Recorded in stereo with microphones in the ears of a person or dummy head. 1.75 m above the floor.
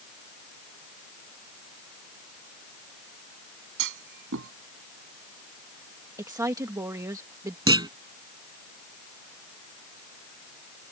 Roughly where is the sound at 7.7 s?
Right.